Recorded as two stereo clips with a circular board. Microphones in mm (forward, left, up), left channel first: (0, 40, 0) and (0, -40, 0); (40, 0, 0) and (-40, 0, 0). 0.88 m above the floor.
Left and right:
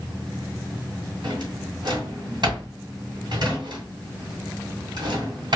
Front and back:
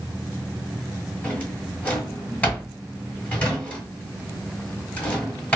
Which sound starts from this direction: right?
A drawer, at 1.2 s.